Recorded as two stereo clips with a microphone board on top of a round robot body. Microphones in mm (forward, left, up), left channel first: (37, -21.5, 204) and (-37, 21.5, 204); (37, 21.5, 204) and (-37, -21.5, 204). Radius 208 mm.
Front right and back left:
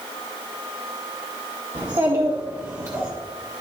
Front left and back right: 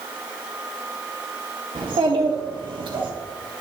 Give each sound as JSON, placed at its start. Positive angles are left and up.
{"t": 1.8, "sound": "a child speaking", "azimuth_deg": -170, "distance_m": 2.0}